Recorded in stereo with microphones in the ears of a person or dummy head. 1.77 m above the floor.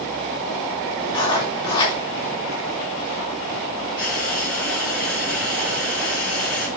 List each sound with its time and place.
1.1 s writing: 20° left (ahead or behind), 3 m
4.0 s frying: 5° left (ahead or behind), 6 m